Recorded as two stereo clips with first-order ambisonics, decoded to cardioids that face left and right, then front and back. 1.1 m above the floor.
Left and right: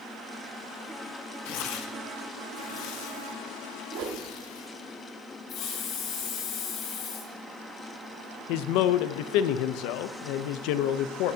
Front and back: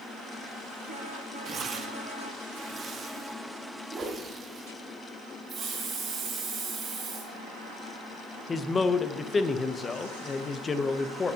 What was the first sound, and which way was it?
Tearing paper, 110° left.